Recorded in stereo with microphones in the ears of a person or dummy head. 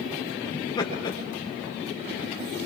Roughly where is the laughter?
Left.